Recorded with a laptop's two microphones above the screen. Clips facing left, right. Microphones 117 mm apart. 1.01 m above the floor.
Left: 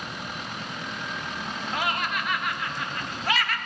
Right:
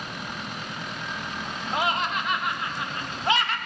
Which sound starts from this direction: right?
Laughter, at 1.7 s.